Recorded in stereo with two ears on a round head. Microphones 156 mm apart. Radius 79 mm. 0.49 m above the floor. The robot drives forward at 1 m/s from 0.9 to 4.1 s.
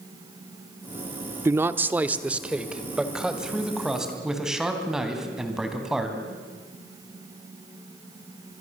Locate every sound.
1.4 s a man speaking: 15° right (ahead or behind), 0.7 m; by 6.2 s 5° right (ahead or behind), 3 m